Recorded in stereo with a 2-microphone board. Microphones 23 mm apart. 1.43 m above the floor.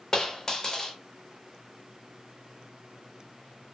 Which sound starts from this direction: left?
A dropped coin, at 0.1 s.